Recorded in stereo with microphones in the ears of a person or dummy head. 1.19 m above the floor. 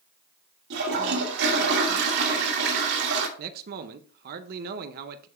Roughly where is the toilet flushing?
Right.